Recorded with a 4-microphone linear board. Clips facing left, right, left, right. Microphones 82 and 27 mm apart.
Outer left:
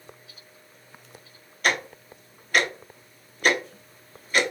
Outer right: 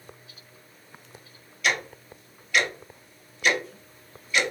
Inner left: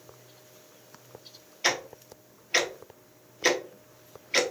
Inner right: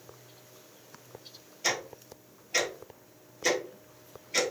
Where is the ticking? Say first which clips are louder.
Outer left 2 dB, inner left 3 dB; 45° left (ahead or behind), 0.8 m.